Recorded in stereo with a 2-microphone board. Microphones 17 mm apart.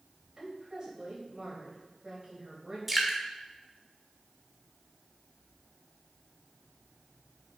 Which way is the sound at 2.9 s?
15° right (ahead or behind).